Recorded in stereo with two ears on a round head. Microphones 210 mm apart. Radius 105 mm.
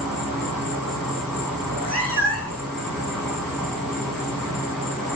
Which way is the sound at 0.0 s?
10° left (ahead or behind).